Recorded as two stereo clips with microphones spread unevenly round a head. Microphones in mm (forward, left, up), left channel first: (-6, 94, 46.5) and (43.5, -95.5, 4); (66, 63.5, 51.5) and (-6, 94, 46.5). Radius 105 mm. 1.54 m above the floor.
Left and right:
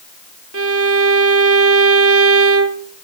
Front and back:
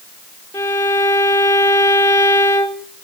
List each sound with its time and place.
0.5 s a violin: 70° right, 1.5 m